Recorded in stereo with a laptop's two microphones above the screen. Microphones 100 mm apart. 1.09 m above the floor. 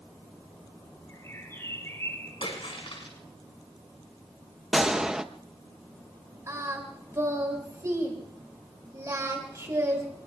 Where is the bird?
30° left (ahead or behind), 4.5 m.